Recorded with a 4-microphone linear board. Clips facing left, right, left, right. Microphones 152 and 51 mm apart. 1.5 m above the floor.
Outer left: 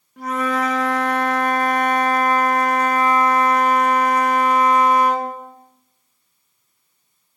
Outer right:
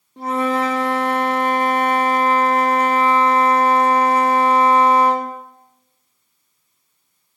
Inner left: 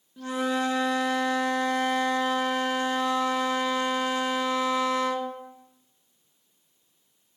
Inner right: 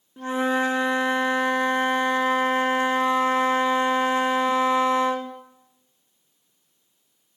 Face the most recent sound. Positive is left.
turn(degrees=-30)  # may be behind; listen again after turning